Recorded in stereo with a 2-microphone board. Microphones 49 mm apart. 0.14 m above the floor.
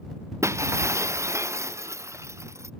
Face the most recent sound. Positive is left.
turn(degrees=-85)